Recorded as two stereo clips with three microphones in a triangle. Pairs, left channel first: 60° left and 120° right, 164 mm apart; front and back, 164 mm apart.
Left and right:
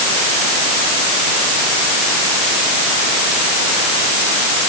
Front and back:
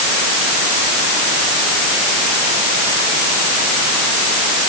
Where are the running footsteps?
No running footsteps in this recording.